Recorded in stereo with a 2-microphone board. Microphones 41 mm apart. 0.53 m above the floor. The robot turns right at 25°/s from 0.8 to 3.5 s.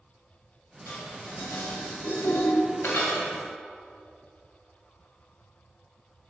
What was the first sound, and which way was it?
Dishes clattering, 50° left (ahead or behind).